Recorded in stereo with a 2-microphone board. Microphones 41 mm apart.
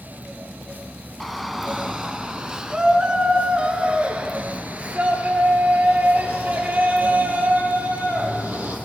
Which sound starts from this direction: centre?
A shout, at 1.2 s.